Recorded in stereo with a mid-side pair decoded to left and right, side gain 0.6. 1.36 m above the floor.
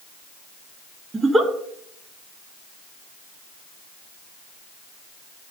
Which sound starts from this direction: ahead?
A giggle, at 1.1 s.